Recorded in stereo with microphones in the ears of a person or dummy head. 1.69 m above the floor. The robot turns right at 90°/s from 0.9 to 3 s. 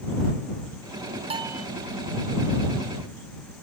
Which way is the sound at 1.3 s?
35° right.